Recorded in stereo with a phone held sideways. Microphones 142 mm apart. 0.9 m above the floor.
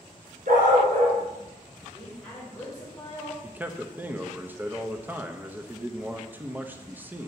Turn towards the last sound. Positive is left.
turn(degrees=-10)  # may be behind; listen again after turning